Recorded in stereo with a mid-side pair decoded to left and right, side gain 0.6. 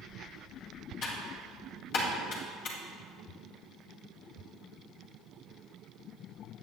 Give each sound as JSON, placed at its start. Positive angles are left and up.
{"t": 1.0, "sound": "typing on a keyboard", "azimuth_deg": 65, "distance_m": 2.5}